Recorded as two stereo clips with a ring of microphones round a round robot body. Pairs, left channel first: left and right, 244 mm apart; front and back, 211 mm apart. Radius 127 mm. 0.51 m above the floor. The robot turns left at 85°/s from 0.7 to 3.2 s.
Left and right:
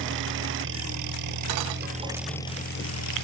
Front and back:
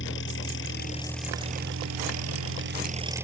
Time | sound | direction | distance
0.0 | an engine running | 45° right | ?